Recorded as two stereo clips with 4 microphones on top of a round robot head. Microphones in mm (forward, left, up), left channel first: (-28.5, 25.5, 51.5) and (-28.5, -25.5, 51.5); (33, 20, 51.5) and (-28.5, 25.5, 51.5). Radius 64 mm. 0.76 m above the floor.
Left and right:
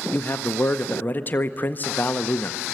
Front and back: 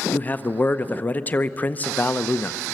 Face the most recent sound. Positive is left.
turn(degrees=50)